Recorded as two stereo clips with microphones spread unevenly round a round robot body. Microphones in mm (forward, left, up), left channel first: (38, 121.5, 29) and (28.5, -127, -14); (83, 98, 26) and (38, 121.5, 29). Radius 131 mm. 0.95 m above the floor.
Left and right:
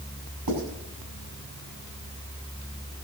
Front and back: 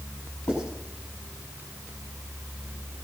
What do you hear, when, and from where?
0.5 s writing: 95° right, 6 m